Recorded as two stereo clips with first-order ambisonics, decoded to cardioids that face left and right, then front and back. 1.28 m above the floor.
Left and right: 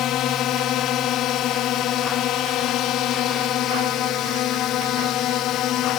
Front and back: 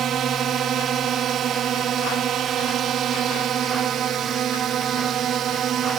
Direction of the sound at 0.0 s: 130° left.